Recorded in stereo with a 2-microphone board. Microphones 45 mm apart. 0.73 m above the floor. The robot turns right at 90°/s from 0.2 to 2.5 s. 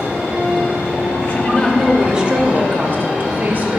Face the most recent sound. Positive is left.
turn(degrees=-130)